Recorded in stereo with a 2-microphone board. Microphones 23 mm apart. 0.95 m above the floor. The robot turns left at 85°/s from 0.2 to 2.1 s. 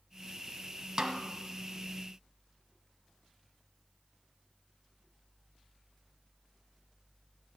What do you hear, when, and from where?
1.0 s a snare drum: 30° right (ahead or behind), 1.2 m; by 1.2 s 45° right (ahead or behind), 1.2 m